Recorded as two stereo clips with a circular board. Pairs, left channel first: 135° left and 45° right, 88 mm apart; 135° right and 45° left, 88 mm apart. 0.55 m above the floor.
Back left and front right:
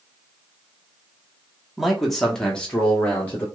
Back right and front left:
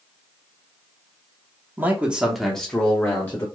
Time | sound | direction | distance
1.8 | a man speaking | 40° left | 0.9 m